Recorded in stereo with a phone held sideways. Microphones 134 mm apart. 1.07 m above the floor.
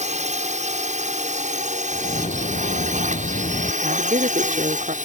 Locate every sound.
0.0 s a drone: 60° right (ahead or behind); by 5.0 s 70° right (ahead or behind)
1.9 s a bird: 75° left (ahead or behind)
3.8 s a woman speaking: 75° right (ahead or behind)